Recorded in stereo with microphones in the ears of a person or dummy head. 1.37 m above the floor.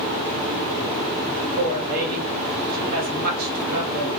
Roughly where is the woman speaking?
Right.